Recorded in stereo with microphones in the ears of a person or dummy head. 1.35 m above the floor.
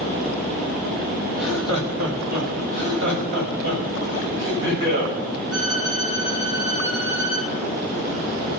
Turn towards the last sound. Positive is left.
turn(degrees=-80)